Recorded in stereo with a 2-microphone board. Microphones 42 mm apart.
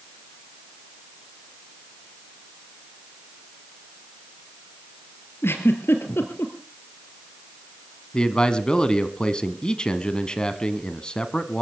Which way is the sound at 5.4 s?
65° left (ahead or behind).